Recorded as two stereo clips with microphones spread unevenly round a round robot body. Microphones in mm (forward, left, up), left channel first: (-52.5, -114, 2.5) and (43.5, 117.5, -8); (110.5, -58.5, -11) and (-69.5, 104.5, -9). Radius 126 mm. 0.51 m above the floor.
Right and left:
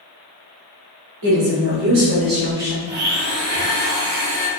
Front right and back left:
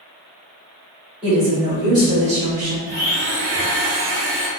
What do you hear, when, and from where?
1.2 s a woman speaking: 55° left, 1.9 m; by 2.8 s 145° left, 1.2 m
2.9 s a blender: 80° left, 1.7 m